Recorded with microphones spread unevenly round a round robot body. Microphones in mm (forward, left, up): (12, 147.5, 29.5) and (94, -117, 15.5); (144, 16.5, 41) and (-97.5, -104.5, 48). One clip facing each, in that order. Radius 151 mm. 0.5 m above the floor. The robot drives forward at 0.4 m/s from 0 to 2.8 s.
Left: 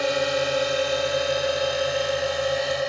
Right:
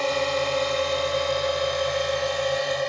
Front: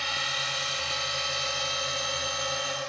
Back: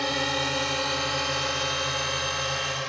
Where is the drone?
175° right; by 2.9 s 165° right.